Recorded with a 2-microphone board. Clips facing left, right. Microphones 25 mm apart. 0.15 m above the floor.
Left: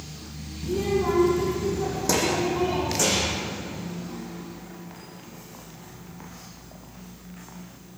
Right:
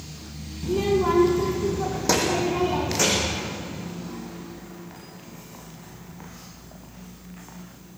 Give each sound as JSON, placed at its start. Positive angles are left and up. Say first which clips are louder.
{"t": 0.6, "sound": "a child speaking", "louder": "right 3 dB", "side_deg": -25, "distance_m": 2.0}